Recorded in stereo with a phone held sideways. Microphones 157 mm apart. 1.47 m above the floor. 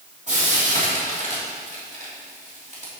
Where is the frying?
50° right (ahead or behind), 3 m.